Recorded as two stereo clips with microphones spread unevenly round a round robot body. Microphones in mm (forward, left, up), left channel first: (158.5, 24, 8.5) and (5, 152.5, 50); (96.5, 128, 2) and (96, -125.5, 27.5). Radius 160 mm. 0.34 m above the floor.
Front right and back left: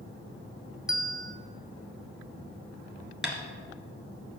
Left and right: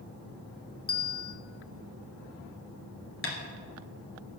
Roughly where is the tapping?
Ahead left.